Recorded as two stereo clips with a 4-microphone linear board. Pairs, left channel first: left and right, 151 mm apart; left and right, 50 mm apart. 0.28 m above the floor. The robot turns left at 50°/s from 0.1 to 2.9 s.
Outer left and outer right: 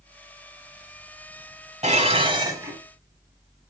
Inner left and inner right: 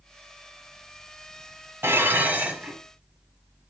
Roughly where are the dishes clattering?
Behind right.